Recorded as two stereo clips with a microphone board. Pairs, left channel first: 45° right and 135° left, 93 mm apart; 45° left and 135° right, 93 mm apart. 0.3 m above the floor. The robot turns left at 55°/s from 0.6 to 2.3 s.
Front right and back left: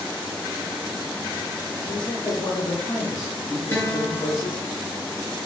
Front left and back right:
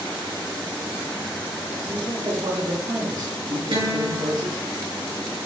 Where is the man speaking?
65° right, 2.5 m; by 4.6 s 95° right, 2.5 m.